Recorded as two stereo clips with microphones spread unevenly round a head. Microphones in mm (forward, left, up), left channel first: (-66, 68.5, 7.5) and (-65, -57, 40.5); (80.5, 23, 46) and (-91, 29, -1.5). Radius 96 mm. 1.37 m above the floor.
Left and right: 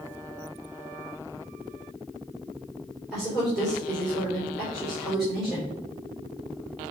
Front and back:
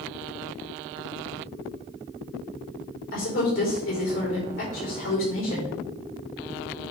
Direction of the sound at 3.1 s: Straight ahead.